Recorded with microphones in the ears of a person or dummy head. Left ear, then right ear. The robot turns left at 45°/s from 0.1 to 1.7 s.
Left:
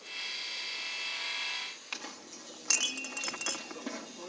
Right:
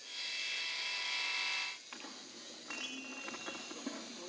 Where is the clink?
80° left, 2 m.